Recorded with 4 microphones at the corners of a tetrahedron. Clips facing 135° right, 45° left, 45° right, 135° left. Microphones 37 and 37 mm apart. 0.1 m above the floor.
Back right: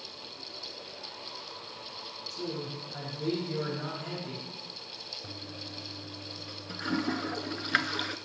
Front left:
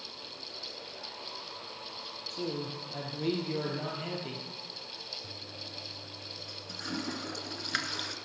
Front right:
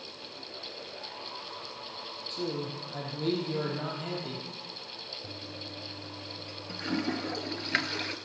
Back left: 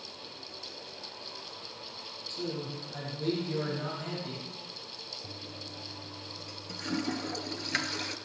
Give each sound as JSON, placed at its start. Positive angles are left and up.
{"t": 2.3, "sound": "a man speaking", "azimuth_deg": 10, "distance_m": 3.0}
{"t": 5.2, "sound": "a toilet flushing", "azimuth_deg": -100, "distance_m": 0.7}